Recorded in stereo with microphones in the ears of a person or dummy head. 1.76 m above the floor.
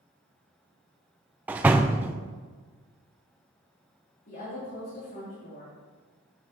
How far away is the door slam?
About 0.5 m.